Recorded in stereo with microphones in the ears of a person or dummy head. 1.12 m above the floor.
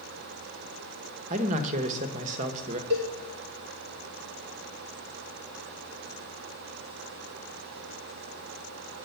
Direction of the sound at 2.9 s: 60° right (ahead or behind).